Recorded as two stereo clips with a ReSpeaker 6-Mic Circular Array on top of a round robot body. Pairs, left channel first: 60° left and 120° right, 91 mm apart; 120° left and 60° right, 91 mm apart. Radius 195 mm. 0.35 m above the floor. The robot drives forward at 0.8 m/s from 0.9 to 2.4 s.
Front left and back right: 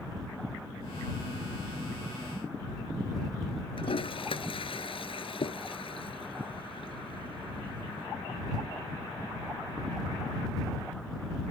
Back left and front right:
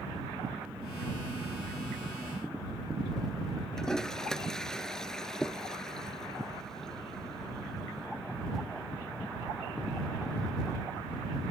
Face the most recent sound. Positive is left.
turn(degrees=35)